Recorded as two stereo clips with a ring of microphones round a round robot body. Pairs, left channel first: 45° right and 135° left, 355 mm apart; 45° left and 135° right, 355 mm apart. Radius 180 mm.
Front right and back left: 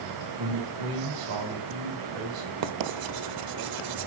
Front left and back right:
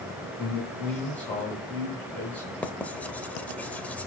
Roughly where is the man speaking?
Behind left.